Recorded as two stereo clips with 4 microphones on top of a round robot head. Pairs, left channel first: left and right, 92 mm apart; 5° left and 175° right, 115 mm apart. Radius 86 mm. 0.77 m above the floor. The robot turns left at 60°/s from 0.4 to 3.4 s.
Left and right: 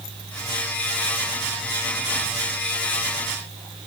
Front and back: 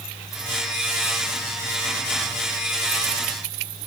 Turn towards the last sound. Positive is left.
No sound to turn to.